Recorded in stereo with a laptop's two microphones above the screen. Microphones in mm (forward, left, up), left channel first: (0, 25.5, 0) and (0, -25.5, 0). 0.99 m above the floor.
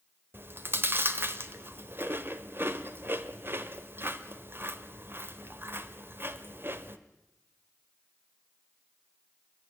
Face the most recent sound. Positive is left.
turn(degrees=-45)  # may be behind; listen again after turning